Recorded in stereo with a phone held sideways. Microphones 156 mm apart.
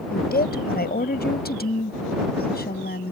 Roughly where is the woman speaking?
Left.